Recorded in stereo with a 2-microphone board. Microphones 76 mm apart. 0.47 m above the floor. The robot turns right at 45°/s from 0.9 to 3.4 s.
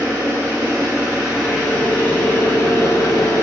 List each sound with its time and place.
0.0 s an engine running: 30° right, 2 m; by 3.4 s 85° left, 2 m